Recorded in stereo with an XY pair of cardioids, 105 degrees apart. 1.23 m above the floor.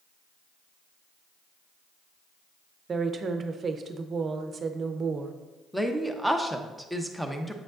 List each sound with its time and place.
2.9 s a woman speaking: 40° right, 0.7 m
5.7 s a woman speaking: straight ahead, 0.8 m